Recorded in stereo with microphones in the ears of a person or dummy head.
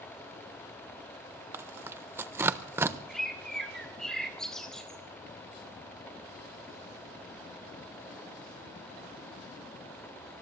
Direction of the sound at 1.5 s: 10° right (ahead or behind).